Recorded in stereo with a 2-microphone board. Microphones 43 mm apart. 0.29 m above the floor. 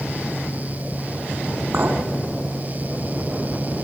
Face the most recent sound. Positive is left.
turn(degrees=-55)  # may be behind; listen again after turning